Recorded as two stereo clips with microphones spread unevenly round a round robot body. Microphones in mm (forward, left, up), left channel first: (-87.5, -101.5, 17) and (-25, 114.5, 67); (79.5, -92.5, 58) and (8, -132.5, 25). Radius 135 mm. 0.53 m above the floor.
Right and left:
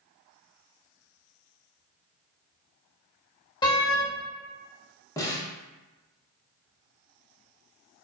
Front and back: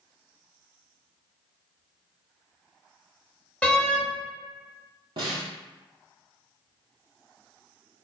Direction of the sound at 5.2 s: 175° left.